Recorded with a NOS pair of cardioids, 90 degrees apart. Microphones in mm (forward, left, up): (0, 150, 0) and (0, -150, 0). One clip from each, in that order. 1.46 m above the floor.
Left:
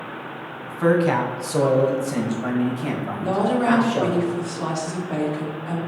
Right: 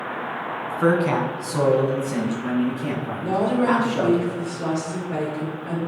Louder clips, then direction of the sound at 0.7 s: Left 1 dB; 5° right.